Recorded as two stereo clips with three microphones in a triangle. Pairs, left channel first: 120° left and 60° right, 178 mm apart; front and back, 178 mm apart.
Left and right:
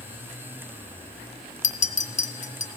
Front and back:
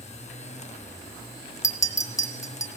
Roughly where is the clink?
Left.